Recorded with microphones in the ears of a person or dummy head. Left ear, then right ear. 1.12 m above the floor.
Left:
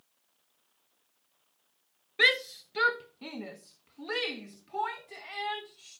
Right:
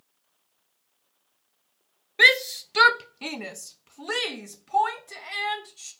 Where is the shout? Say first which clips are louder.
Right 7 dB; 20° right (ahead or behind), 0.8 m; by 5.9 s 70° right (ahead or behind), 3 m.